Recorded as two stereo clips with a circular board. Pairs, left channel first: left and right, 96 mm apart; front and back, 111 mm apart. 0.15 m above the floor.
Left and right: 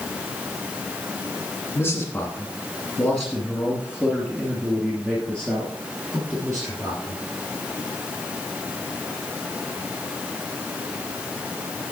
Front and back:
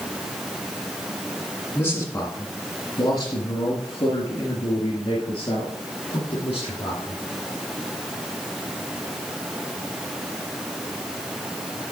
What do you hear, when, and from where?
1.8 s a man speaking: 50° left, 1.7 m; by 7.2 s 35° right, 3 m